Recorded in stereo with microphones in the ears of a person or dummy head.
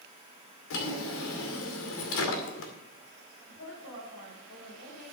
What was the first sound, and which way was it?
A drawer, 70° left (ahead or behind).